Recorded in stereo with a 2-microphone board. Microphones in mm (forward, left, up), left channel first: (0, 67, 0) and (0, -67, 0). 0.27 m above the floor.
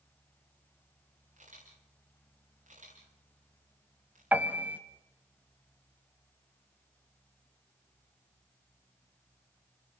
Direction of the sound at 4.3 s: 15° right (ahead or behind).